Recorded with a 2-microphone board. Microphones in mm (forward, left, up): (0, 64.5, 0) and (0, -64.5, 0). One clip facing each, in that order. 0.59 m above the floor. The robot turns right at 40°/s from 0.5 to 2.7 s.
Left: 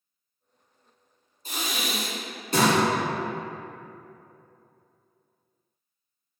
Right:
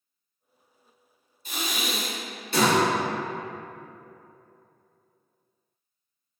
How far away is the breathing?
About 1.1 m.